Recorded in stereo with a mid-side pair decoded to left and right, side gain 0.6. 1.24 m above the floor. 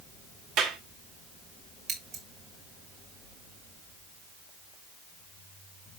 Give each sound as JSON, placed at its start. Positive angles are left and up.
{"t": 0.6, "sound": "a clap", "azimuth_deg": -65, "distance_m": 2.0}
{"t": 1.9, "sound": "scissors", "azimuth_deg": -60, "distance_m": 4.5}